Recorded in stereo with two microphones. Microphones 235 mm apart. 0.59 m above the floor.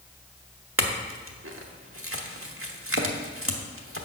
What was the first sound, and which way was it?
A clink, 65° right (ahead or behind).